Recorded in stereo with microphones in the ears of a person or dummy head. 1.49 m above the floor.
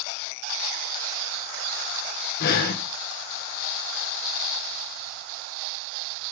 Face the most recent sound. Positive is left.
turn(degrees=50)  # may be behind; listen again after turning